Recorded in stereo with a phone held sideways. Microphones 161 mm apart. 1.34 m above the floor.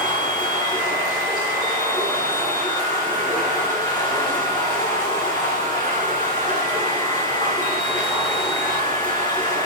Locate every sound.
0.0 s running water: 25° left (ahead or behind), 8.5 m